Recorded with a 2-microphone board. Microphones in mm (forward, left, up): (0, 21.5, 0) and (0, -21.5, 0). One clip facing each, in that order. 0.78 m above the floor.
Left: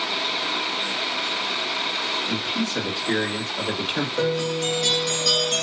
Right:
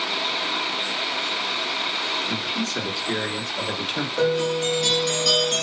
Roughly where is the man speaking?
Left.